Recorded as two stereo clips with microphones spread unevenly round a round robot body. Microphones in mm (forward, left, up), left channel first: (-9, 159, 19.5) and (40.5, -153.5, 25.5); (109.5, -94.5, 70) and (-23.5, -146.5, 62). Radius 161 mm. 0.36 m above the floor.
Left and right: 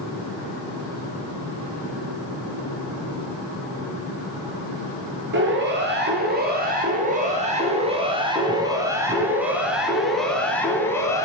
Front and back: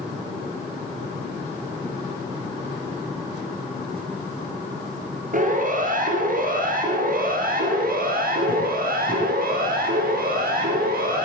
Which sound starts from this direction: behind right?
A siren, at 5.3 s.